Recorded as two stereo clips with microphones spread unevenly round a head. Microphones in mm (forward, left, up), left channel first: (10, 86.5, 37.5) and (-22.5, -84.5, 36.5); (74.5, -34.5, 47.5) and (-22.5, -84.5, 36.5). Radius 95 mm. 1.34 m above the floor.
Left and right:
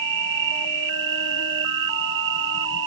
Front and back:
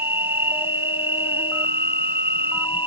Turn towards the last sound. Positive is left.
turn(degrees=-80)